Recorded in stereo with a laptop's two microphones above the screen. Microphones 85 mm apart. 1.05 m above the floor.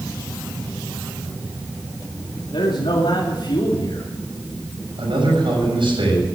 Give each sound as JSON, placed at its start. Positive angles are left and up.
{"t": 2.5, "sound": "a man speaking", "side_deg": 75, "distance_m": 2.5}
{"t": 5.0, "sound": "a man speaking", "side_deg": -80, "distance_m": 7.0}